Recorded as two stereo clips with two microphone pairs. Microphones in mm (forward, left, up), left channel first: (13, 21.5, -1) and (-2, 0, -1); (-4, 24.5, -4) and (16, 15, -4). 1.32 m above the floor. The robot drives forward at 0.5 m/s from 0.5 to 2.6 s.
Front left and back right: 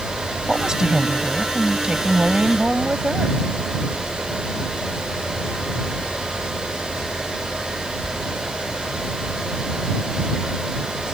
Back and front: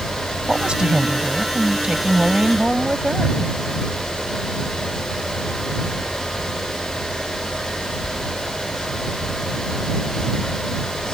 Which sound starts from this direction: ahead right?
A woman speaking, at 0.5 s.